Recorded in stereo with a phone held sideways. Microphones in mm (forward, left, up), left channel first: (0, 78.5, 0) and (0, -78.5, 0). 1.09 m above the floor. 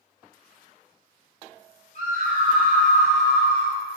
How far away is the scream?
About 1.3 m.